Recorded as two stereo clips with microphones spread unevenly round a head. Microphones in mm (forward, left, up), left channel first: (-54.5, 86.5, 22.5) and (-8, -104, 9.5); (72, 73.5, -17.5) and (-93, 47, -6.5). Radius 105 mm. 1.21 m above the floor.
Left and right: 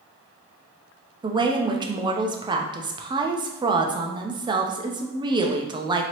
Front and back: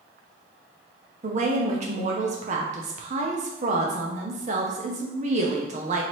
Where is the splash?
No splash in this recording.